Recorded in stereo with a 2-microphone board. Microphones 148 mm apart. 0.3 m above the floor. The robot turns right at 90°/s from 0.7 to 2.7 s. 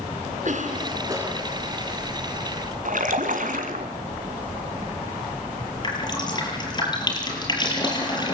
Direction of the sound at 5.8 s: 30° left (ahead or behind).